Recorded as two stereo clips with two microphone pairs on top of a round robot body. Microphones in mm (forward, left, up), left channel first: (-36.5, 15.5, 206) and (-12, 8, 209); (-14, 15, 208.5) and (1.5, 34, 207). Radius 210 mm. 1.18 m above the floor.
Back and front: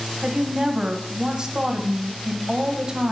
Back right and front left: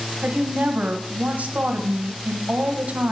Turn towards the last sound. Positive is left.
turn(degrees=50)